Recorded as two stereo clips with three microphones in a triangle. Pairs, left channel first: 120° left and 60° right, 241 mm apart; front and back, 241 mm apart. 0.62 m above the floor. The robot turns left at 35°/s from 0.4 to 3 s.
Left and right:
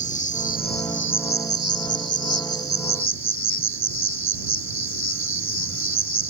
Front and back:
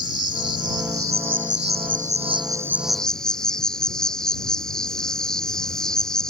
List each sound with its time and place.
0.0 s an insect: straight behind; by 6.3 s 90° left